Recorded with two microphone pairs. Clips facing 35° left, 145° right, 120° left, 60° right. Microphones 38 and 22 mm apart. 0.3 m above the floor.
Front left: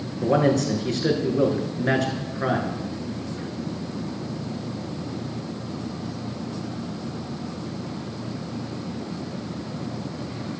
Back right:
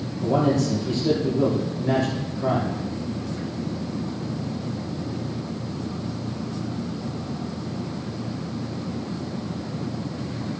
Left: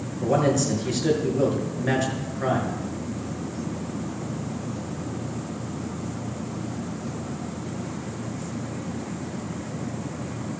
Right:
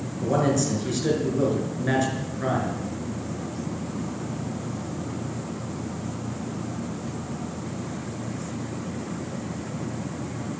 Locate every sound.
0.2 s a man speaking: 40° left, 5 m